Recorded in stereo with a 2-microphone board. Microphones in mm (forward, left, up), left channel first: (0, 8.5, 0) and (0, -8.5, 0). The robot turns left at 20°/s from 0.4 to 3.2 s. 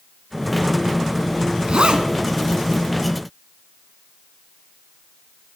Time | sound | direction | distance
1.7 | a zipper | 75° right (ahead or behind) | 0.7 m